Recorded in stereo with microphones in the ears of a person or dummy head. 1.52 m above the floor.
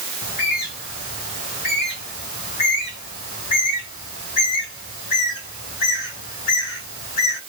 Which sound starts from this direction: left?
A bird, at 0.2 s.